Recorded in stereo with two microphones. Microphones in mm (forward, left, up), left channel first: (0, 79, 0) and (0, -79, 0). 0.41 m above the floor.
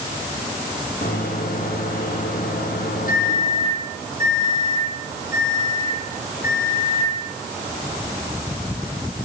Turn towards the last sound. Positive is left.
turn(degrees=60)  # may be behind; listen again after turning